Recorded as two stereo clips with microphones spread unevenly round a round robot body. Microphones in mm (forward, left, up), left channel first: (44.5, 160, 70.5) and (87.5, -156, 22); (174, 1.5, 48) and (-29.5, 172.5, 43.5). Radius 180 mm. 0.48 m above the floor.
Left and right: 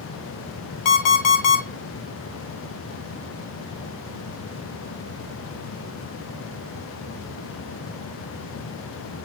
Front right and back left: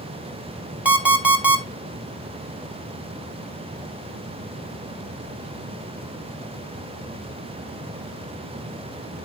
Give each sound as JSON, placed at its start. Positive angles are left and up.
{"t": 0.8, "sound": "an alarm clock", "azimuth_deg": 55, "distance_m": 1.6}